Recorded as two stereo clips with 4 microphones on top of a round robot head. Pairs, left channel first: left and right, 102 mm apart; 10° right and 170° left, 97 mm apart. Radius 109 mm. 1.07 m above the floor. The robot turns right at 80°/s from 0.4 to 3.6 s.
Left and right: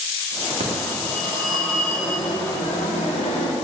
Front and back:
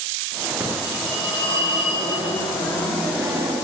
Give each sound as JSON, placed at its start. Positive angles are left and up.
{"t": 0.6, "sound": "a phone ringing", "azimuth_deg": -115, "distance_m": 2.0}